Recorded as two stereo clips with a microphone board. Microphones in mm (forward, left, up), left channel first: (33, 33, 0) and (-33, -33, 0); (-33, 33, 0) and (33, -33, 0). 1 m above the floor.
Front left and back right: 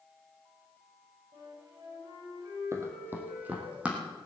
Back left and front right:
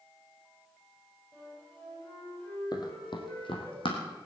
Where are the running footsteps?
170° left, 2 m; by 4.0 s 150° left, 3.5 m.